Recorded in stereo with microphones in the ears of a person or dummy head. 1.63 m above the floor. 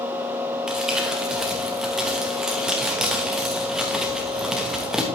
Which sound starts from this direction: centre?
Crumpling, at 0.7 s.